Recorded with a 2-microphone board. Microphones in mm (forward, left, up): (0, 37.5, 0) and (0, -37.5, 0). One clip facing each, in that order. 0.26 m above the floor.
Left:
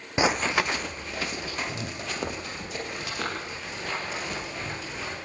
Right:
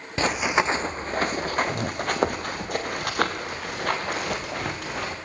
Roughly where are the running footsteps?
Centre.